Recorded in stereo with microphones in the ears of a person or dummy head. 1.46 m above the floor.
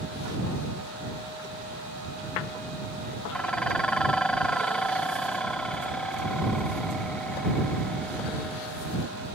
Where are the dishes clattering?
5° left (ahead or behind).